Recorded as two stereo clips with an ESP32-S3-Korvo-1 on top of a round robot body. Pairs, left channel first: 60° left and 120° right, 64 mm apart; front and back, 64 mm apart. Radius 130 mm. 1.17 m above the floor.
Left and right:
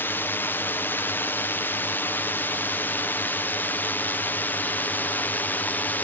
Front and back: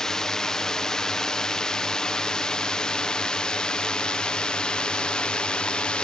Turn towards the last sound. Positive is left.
turn(degrees=55)